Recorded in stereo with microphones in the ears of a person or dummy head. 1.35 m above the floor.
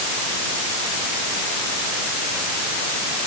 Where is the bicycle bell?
No bicycle bell in this recording.